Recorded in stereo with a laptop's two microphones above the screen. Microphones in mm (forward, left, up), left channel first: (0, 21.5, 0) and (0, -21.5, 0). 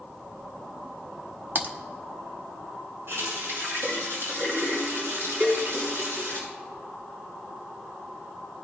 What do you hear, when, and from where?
1.6 s typing on a keyboard: 45° right (ahead or behind), 1.0 m
3.1 s a running tap: 70° right (ahead or behind), 7.5 m
5.4 s a cowbell: 40° right (ahead or behind), 7.5 m